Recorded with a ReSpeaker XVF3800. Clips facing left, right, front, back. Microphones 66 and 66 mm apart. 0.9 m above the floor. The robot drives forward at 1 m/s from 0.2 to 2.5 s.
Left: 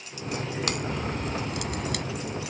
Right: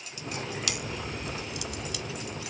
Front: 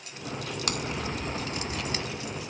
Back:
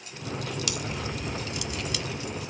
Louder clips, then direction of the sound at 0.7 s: Left 5 dB, front 1 dB; 45° left.